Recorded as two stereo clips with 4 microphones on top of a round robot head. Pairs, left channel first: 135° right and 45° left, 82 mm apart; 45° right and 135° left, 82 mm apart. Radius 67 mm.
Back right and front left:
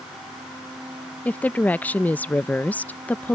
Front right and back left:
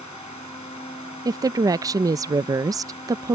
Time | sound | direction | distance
1.2 | a woman speaking | 160° left | ?